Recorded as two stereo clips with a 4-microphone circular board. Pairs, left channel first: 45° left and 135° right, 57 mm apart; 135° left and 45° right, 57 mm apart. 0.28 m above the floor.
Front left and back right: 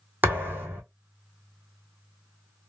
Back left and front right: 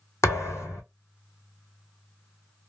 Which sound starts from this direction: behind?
A thud, at 0.2 s.